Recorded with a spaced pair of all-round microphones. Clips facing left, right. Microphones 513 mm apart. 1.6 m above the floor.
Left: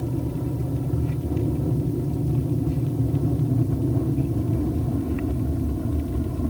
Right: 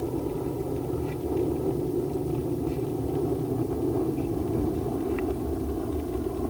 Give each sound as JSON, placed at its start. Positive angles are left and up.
{"t": 0.0, "sound": "an aircraft", "side_deg": 40}